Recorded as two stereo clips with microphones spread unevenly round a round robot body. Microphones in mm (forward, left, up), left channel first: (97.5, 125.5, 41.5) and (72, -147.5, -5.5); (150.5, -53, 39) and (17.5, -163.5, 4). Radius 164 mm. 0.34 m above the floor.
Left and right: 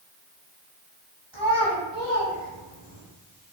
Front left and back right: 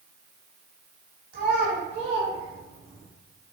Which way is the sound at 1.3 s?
160° right.